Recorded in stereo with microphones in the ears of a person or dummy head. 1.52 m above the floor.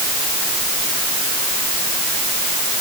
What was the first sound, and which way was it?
Only background noise.